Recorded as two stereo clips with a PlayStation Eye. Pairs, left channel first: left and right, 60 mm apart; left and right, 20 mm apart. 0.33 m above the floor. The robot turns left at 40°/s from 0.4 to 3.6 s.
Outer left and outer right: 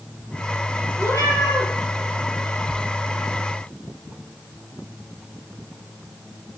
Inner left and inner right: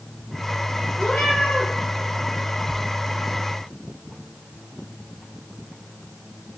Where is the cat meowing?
70° left (ahead or behind), 4 m; by 1.7 s 80° left, 4 m.